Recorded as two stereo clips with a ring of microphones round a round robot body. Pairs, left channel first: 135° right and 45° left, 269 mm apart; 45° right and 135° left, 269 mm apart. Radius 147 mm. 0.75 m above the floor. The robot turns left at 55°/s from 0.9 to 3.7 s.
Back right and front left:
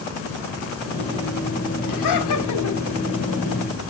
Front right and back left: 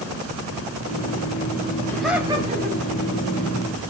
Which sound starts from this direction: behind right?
Laughter, at 1.9 s.